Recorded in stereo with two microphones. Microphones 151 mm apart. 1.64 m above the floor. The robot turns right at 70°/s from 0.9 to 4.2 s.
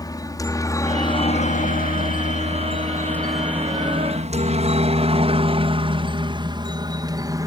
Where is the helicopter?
25° left (ahead or behind); by 7.5 s 25° right (ahead or behind).